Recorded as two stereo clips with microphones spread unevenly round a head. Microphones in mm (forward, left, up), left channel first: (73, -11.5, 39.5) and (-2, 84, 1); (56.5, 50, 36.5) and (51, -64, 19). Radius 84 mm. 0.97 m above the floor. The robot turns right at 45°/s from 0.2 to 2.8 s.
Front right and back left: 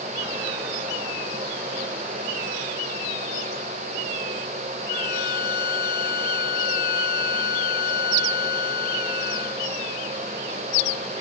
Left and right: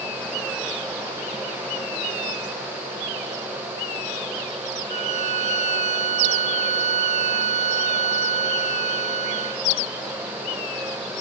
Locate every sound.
4.9 s a violin: 75° right